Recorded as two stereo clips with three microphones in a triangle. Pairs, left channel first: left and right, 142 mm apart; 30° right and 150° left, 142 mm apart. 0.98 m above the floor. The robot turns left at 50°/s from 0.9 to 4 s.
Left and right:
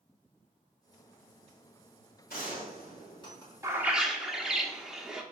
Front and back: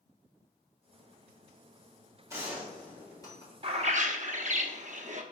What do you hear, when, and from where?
2.3 s a gunshot: 80° left, 4.5 m; by 3.5 s 20° left, 4.5 m
3.6 s a bird: 155° right, 0.9 m; by 5.2 s 175° right, 0.9 m